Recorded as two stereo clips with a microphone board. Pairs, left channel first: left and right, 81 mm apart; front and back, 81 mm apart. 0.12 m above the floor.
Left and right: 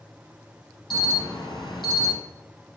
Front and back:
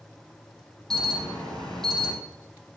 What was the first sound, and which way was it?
An alarm, 85° left.